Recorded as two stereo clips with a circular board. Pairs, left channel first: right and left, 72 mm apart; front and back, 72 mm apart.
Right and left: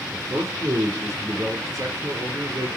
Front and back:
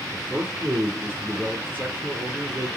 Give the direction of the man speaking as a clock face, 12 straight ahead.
8 o'clock.